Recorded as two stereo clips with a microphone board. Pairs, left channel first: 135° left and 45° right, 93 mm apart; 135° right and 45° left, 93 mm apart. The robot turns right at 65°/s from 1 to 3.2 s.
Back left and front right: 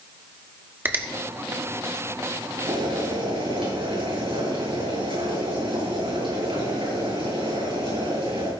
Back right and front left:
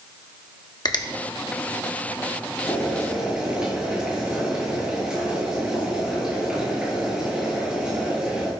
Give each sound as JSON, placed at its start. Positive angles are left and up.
{"t": 0.8, "sound": "a finger snap", "azimuth_deg": -105, "distance_m": 1.4}
{"t": 2.7, "sound": "boiling", "azimuth_deg": -70, "distance_m": 7.5}